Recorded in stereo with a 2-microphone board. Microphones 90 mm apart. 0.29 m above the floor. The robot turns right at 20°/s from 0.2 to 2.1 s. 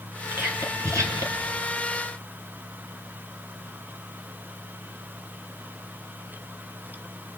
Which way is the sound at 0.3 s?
25° right (ahead or behind).